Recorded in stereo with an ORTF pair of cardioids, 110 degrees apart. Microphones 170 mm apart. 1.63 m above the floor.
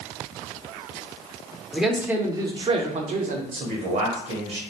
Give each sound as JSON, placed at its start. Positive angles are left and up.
{"t": 1.7, "sound": "a man speaking", "azimuth_deg": 0, "distance_m": 0.8}
{"t": 3.5, "sound": "a man speaking", "azimuth_deg": -50, "distance_m": 1.1}